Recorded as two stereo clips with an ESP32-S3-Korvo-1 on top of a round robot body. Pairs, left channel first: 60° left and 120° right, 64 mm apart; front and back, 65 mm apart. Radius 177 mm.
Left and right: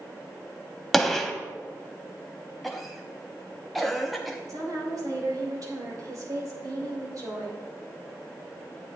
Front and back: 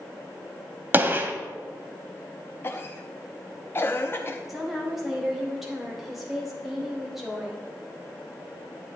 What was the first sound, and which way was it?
A gunshot, 150° left.